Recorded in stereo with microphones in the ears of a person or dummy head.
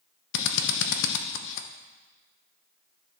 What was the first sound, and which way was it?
A drill, 65° left (ahead or behind).